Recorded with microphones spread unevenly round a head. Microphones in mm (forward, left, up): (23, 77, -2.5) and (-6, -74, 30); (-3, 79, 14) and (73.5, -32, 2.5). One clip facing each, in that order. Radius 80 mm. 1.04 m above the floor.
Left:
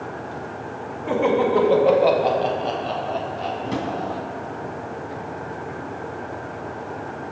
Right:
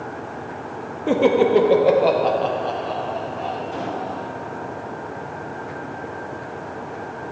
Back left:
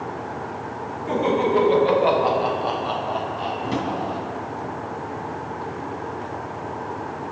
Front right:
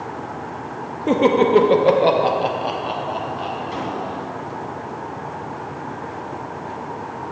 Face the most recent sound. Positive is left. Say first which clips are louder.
# left 2 dB, back left 2 dB
turn(degrees=95)